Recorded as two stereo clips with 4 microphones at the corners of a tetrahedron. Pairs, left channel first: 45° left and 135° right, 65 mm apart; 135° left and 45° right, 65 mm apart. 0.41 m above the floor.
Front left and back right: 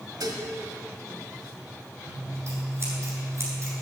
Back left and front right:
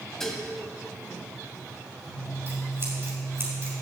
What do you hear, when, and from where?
0.2 s dishes clattering: 145° right, 1.6 m
2.1 s scissors: 90° right, 4.5 m